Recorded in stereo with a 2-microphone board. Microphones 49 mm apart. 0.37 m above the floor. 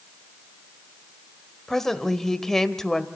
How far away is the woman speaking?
About 1.3 m.